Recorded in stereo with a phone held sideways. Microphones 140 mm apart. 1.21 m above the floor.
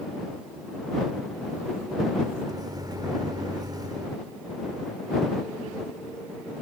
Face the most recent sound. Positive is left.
turn(degrees=-30)  # may be behind; listen again after turning